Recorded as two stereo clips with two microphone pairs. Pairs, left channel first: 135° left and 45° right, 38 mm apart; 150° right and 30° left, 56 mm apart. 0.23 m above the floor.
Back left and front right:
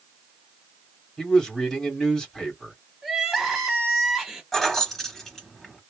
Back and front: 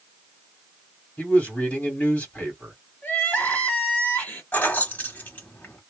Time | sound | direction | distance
1.2 | a man speaking | 165° right | 1.8 m
3.0 | crying | 135° right | 1.1 m
4.5 | keys jangling | 150° right | 1.2 m